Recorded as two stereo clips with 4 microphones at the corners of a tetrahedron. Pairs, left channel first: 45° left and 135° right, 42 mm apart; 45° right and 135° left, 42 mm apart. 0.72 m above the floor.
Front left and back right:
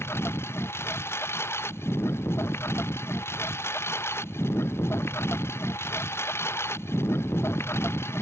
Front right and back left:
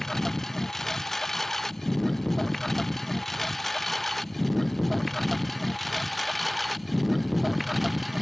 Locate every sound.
0.0 s a lawn mower: 40° left; by 8.2 s 50° left